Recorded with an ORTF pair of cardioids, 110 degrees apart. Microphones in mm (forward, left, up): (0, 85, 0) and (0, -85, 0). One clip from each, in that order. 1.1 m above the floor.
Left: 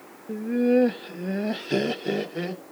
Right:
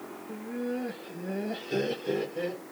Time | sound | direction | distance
0.3 | laughter | 60° left | 0.8 m